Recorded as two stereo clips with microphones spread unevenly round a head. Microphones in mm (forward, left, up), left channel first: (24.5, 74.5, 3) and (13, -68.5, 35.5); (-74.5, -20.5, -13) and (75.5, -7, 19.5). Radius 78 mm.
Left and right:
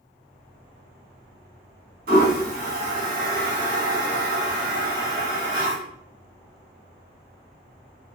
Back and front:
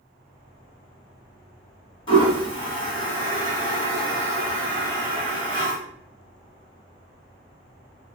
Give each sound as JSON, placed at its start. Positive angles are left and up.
{"t": 2.1, "sound": "a toilet flushing", "azimuth_deg": -130, "distance_m": 1.6}